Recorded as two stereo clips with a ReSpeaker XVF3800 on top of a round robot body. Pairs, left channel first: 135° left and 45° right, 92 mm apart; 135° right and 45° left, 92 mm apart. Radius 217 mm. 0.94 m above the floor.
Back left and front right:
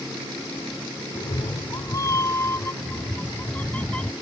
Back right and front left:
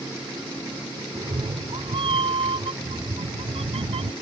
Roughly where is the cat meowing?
Left.